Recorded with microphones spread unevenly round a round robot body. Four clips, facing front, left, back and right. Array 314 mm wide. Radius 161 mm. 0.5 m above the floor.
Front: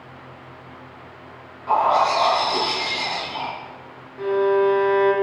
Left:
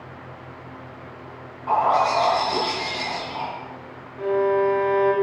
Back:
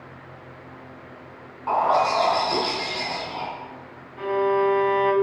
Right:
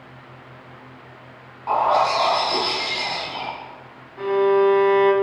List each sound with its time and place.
1.7 s a bird: 145° right, 5 m
4.2 s a violin: 115° right, 2.5 m